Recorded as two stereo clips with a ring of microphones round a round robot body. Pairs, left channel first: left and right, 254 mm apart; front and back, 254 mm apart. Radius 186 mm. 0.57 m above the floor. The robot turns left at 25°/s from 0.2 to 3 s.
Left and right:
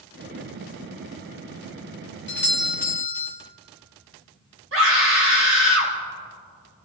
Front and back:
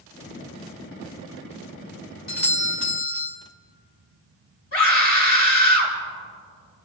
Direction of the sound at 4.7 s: 55° right.